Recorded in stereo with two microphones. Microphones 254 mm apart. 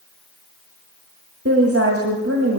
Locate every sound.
1.4 s a woman speaking: 60° right (ahead or behind), 2 m